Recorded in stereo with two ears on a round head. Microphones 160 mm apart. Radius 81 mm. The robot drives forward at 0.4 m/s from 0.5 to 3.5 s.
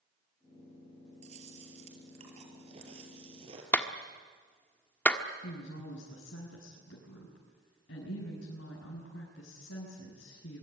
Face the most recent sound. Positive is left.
turn(degrees=80)